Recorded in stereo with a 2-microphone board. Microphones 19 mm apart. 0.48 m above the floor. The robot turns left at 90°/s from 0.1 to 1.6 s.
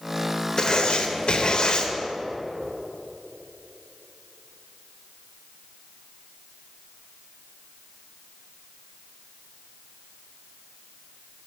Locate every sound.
0.6 s writing: 150° left, 0.6 m; by 1.9 s 60° left, 0.6 m